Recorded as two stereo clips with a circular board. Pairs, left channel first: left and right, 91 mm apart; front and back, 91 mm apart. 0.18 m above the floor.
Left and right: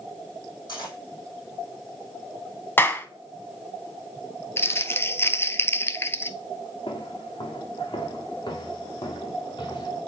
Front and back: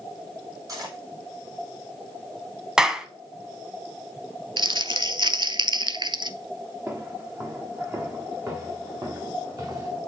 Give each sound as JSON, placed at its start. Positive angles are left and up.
{"t": 0.7, "sound": "cutlery clinking", "azimuth_deg": 135, "distance_m": 4.0}
{"t": 2.8, "sound": "a clap", "azimuth_deg": 110, "distance_m": 0.9}
{"t": 4.6, "sound": "crumpling", "azimuth_deg": 150, "distance_m": 0.6}
{"t": 6.9, "sound": "footsteps", "azimuth_deg": 115, "distance_m": 2.5}